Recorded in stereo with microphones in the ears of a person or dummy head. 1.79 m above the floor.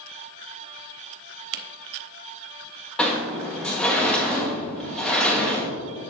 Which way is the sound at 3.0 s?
5° left (ahead or behind).